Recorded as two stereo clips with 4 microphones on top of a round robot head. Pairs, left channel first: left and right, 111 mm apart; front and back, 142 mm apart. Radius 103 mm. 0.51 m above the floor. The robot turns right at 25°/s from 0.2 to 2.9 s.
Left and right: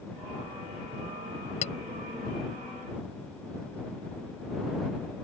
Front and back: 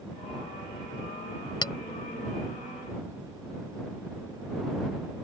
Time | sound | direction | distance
1.6 | a clink | 55° left | ?